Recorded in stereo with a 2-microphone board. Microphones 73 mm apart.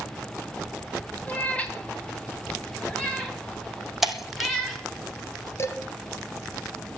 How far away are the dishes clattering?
About 1.6 m.